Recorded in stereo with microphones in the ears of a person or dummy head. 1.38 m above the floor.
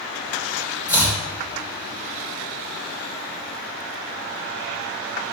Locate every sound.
0.9 s chopping: 20° left (ahead or behind), 2 m